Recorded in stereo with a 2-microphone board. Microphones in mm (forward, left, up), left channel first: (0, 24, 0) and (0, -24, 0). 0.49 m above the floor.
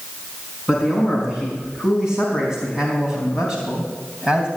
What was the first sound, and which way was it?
A man speaking, 10° right (ahead or behind).